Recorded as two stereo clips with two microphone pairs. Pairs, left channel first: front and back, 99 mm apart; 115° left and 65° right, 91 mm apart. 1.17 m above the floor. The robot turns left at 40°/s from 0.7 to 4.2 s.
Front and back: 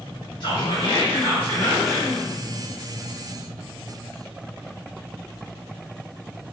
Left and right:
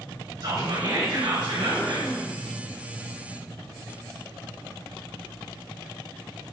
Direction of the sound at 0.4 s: 35° right.